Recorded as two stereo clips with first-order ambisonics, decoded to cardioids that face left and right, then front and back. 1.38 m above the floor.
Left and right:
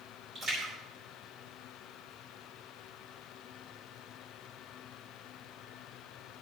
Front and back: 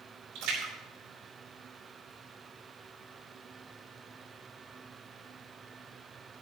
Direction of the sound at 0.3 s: 160° right.